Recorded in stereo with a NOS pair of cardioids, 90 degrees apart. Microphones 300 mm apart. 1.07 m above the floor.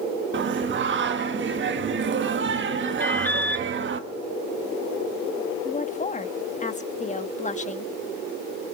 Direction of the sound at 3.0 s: 5° left.